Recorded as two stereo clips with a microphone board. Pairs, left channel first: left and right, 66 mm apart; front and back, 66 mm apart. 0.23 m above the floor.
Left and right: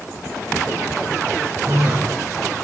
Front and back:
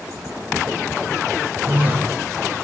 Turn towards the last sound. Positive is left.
turn(degrees=-125)